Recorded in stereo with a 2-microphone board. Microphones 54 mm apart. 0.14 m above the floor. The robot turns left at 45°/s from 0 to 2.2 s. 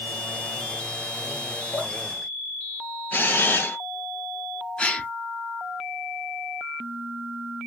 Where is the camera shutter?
35° left (ahead or behind), 2 m.